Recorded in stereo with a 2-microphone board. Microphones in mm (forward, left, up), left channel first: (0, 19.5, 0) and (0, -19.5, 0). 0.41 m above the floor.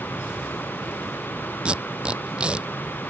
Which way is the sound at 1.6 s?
25° right (ahead or behind).